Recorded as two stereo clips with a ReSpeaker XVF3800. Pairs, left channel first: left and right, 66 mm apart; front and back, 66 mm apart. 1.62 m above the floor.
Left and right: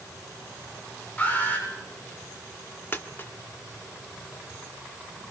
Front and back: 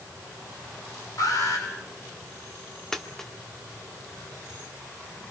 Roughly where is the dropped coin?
Left.